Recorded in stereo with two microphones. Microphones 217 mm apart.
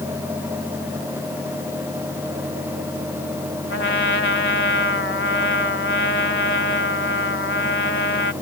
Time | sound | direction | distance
3.7 | a trumpet | 70° left (ahead or behind) | ?